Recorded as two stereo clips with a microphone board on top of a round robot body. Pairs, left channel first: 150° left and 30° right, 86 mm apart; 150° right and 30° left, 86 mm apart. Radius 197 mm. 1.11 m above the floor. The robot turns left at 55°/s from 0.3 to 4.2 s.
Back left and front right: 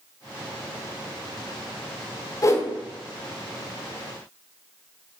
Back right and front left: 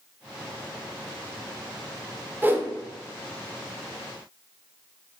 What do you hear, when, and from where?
2.4 s a whoosh: 100° left, 0.5 m; by 2.7 s 85° left, 0.5 m